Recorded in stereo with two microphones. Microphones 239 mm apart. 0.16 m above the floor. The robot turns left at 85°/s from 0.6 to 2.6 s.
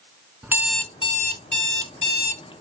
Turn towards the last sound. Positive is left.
turn(degrees=20)